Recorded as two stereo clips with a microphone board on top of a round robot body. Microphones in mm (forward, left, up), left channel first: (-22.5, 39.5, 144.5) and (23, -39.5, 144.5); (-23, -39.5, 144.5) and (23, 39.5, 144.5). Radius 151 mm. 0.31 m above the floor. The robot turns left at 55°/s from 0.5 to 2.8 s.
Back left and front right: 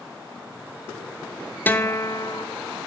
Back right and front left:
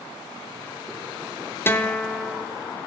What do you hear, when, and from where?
1.7 s a guitar: 175° right, 1.0 m; by 2.5 s 140° left, 1.0 m